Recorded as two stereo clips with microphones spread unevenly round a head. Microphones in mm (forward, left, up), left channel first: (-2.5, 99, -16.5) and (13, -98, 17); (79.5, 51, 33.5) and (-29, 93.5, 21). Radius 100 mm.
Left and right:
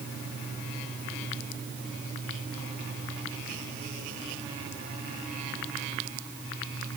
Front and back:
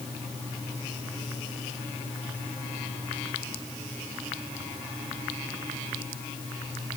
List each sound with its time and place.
Only background noise.